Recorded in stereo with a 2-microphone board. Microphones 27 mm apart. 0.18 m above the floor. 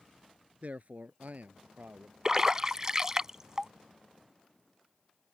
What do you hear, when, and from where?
0.6 s a man speaking: 60° right (ahead or behind); by 2.1 s 70° right (ahead or behind)
2.2 s a splash: 25° right (ahead or behind)